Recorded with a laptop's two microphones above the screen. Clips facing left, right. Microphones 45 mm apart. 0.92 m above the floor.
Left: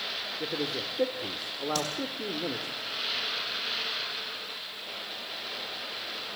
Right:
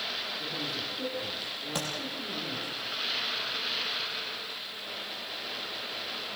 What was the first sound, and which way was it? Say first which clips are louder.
A man speaking: left 3 dB; 80° left.